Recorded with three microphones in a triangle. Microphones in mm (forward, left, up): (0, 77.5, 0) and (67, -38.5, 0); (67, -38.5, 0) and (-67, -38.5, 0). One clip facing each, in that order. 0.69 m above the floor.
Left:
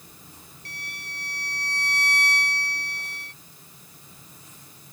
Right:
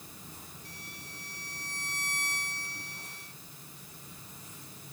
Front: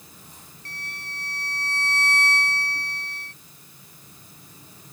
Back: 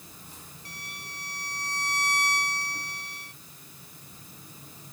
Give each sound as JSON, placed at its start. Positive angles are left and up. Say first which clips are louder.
{"t": 0.7, "sound": "a violin", "louder": "left 5 dB, front 4 dB", "azimuth_deg": 100}